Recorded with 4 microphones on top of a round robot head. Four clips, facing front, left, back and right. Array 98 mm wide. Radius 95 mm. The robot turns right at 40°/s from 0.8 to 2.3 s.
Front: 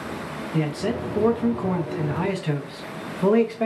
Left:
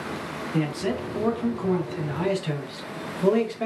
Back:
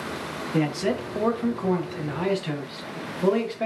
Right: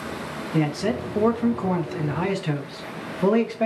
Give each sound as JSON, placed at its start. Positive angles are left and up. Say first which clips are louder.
{"t": 0.5, "sound": "a man speaking", "louder": "right 3 dB, back 1 dB", "azimuth_deg": -125, "distance_m": 0.7}